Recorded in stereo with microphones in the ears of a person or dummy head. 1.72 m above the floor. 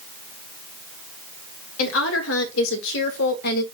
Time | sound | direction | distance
1.8 | a woman speaking | 80° left | 3 m